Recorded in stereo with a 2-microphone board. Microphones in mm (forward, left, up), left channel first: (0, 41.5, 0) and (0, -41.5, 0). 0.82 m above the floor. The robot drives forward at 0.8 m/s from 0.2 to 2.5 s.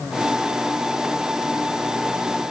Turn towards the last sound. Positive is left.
No sound to turn to.